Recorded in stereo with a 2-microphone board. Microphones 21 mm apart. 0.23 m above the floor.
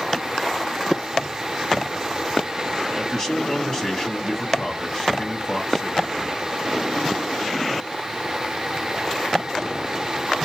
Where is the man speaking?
30° left (ahead or behind), 1.6 m.